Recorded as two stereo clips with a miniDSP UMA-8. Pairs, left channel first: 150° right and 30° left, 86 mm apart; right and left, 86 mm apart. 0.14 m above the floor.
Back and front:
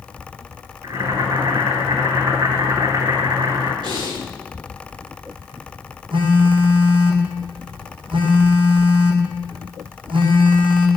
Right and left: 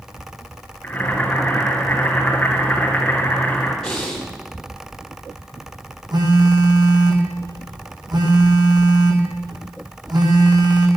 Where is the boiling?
20° right, 6 m.